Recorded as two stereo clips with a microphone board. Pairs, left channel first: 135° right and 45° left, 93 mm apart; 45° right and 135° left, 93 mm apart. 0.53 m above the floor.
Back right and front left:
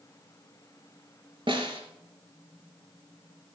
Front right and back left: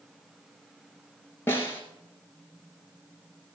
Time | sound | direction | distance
1.5 | a snare drum | 20° left | 2.5 m